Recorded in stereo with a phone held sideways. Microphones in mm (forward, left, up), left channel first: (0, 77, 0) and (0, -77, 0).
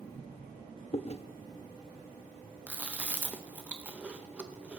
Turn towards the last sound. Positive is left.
turn(degrees=-10)  # may be behind; listen again after turning